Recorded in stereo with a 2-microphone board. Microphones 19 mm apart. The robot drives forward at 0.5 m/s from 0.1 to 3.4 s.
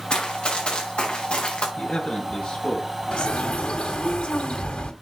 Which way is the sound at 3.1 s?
85° left.